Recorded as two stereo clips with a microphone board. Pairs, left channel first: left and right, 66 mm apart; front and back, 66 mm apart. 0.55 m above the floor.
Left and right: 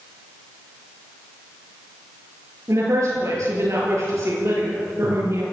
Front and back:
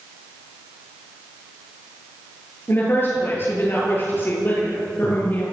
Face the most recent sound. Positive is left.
turn(degrees=-55)